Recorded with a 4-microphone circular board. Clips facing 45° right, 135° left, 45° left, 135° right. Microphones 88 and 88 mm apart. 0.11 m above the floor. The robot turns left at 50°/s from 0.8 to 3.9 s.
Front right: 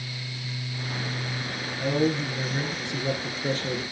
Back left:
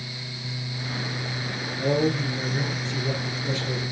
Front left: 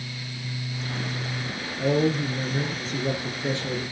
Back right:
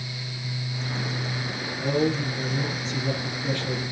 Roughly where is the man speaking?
Left.